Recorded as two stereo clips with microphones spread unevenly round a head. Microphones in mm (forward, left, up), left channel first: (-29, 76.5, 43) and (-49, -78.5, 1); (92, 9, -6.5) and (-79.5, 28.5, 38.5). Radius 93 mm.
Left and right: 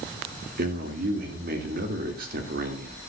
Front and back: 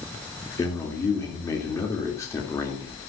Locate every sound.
0.6 s a man speaking: 75° right, 3 m